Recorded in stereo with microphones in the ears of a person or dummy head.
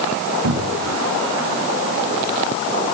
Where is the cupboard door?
60° right (ahead or behind), 1.1 m.